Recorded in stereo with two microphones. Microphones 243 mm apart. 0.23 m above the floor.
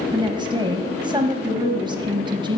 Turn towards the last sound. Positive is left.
turn(degrees=-20)  # may be behind; listen again after turning